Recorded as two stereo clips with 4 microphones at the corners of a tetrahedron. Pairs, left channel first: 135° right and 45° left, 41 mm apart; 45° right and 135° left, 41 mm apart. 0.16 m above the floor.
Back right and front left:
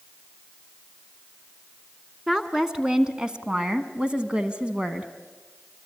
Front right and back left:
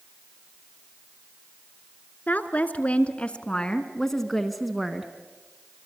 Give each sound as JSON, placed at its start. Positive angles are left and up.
{"t": 2.3, "sound": "a woman speaking", "azimuth_deg": -20, "distance_m": 2.0}